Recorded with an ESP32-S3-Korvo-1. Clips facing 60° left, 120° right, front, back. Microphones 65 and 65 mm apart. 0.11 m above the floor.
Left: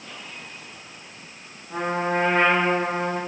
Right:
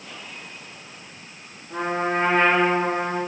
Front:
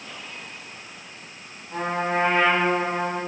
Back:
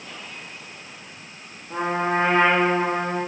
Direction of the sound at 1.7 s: 140° left.